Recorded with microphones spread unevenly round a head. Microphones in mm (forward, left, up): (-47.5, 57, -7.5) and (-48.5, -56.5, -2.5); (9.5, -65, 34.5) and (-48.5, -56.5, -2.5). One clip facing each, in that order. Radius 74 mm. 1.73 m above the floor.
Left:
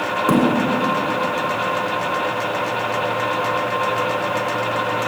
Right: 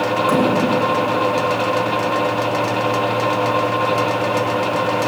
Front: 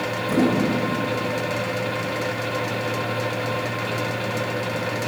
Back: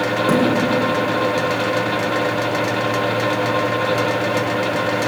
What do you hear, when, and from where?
0.3 s a thud: 140° left, 7.5 m